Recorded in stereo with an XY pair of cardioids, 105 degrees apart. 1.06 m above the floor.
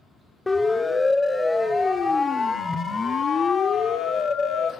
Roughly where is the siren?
Ahead.